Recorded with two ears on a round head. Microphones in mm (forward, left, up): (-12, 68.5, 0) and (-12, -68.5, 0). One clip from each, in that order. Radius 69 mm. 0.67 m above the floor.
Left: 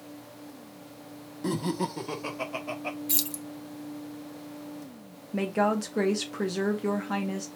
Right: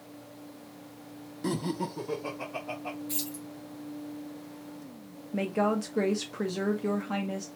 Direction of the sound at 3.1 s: 55° left (ahead or behind).